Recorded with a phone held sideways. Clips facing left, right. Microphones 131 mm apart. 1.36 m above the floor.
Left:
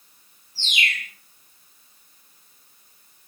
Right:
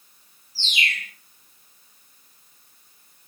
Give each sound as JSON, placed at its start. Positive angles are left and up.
{"t": 0.6, "sound": "a bird", "side_deg": -35, "distance_m": 3.0}